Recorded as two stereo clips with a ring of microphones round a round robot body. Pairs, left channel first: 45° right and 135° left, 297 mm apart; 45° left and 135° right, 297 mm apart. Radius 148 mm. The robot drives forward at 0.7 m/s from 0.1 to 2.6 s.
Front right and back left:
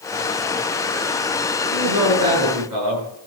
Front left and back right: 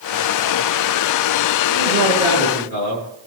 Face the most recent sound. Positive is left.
turn(degrees=110)